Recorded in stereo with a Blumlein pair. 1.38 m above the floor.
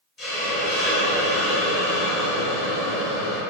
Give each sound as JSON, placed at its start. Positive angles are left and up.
{"t": 0.2, "sound": "a hiss", "azimuth_deg": 25, "distance_m": 0.9}